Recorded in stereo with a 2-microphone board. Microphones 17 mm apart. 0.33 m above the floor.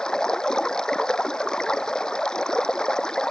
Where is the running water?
45° left (ahead or behind).